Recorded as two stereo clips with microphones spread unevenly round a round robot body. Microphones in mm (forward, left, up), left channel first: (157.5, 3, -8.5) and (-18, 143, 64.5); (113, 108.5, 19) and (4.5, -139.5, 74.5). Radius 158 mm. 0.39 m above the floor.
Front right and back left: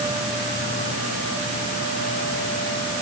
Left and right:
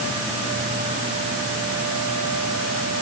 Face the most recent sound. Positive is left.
No sound to turn to.